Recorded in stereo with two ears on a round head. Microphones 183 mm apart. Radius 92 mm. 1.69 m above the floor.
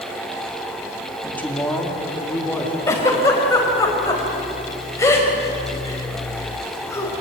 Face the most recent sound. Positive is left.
turn(degrees=15)  # may be behind; listen again after turning